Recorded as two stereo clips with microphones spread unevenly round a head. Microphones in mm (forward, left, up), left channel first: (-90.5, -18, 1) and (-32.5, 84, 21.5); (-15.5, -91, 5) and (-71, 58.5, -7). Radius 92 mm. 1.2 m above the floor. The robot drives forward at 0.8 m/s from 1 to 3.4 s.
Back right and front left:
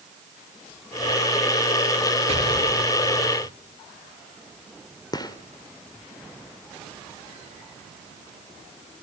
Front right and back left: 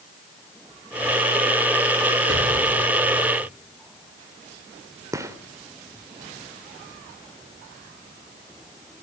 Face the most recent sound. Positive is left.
turn(degrees=180)